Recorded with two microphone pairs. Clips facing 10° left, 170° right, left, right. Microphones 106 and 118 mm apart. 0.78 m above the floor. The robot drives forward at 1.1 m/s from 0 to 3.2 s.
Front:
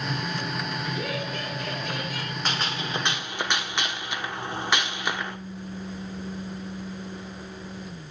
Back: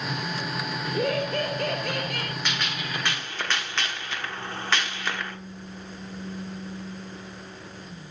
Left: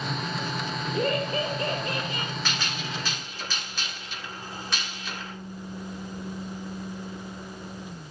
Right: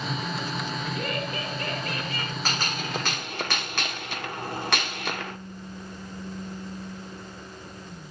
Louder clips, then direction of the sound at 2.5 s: Front 2 dB, right 2 dB; 40° right.